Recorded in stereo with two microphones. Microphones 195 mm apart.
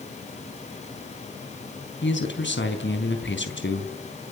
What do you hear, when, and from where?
2.0 s a man speaking: 70° left (ahead or behind), 4 m